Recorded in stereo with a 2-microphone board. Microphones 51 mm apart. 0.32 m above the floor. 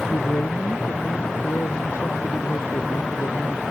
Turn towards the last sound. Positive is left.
turn(degrees=55)  # may be behind; listen again after turning